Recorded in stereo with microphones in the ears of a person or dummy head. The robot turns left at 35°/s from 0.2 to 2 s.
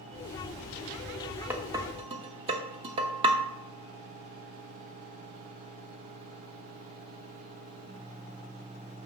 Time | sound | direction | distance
1.5 | dishes clattering | 10° right (ahead or behind) | 0.9 m